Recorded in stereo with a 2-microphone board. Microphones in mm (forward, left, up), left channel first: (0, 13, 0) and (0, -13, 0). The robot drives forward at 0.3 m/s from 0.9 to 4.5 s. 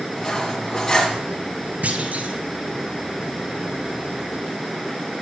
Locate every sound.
0.2 s cutlery clinking: 20° left (ahead or behind), 1.6 m
1.8 s a clunk: 65° right (ahead or behind), 0.9 m; by 2.4 s 75° right (ahead or behind), 0.9 m